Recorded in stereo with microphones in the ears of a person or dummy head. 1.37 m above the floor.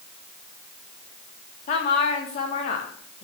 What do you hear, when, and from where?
1.7 s a woman speaking: 40° left (ahead or behind), 3 m